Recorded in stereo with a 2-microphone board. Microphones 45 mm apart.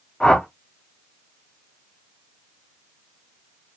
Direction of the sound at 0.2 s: 15° left (ahead or behind).